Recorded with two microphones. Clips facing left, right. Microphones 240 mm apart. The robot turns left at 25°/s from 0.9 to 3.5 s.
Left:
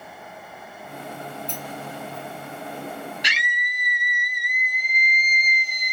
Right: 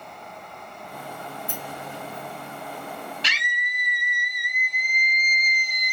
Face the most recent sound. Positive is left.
turn(degrees=10)  # may be behind; listen again after turning